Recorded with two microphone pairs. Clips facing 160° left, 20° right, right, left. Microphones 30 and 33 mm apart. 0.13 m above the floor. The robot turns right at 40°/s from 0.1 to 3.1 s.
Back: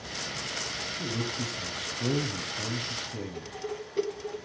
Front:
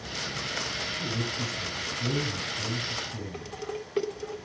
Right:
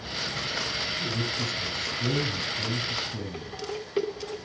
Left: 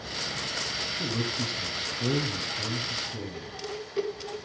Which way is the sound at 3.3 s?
40° right.